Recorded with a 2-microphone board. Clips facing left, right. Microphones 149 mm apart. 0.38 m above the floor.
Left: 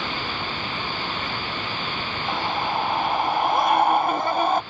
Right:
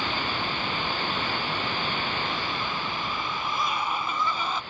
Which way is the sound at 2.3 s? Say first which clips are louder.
Left 6 dB; 75° left (ahead or behind).